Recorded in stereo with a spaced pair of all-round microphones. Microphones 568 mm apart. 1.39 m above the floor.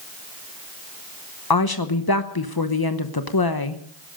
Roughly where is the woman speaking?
Left.